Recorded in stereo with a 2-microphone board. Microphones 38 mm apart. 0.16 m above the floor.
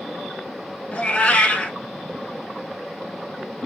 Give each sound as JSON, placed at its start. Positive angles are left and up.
{"t": 0.9, "sound": "a cat meowing", "side_deg": 25, "distance_m": 0.9}